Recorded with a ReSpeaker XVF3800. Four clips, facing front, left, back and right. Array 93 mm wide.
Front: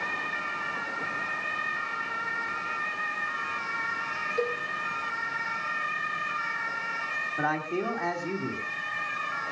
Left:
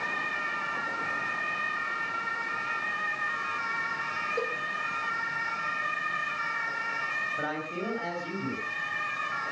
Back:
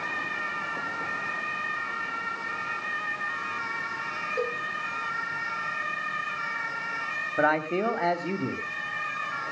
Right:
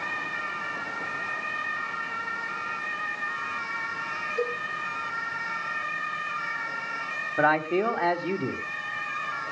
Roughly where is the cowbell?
Behind left.